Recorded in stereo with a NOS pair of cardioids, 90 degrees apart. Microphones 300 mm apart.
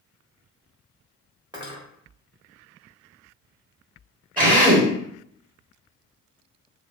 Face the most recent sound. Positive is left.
turn(degrees=-25)